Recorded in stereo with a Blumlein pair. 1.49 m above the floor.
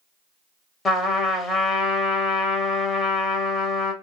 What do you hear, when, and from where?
0.8 s a trumpet: 15° left, 0.7 m